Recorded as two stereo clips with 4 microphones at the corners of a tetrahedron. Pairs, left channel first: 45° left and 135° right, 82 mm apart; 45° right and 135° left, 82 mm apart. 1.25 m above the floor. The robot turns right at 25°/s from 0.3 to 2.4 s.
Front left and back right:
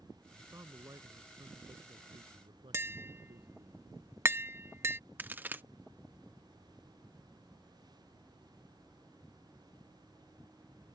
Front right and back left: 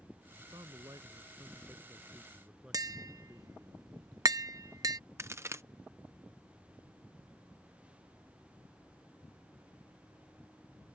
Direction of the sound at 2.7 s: 170° left.